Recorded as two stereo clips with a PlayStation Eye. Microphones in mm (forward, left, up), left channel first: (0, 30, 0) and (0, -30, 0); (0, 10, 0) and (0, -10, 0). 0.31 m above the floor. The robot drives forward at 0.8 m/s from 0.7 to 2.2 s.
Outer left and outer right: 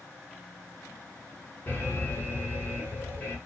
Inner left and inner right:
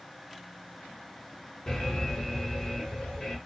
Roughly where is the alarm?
Left.